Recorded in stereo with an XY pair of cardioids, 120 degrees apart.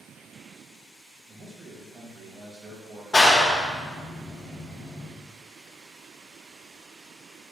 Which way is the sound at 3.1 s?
25° left.